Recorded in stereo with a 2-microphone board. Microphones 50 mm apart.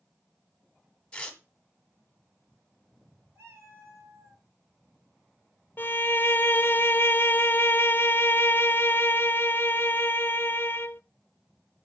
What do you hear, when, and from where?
1.1 s tearing paper: 20° left (ahead or behind), 1.8 m
3.4 s a cat meowing: 70° right (ahead or behind), 3.5 m
5.8 s a violin: 45° left (ahead or behind), 0.5 m